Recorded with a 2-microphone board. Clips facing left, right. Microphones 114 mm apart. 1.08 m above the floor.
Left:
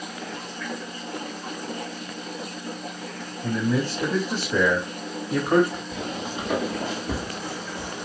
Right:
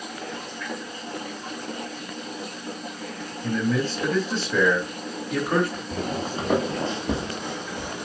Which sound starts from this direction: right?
Footsteps, at 5.9 s.